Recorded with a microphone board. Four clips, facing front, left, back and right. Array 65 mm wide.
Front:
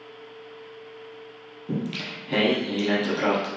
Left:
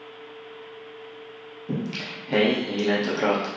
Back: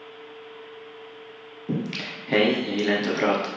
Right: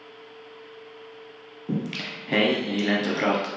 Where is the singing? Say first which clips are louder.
Right 1 dB, back 1 dB; 140° right, 0.9 m.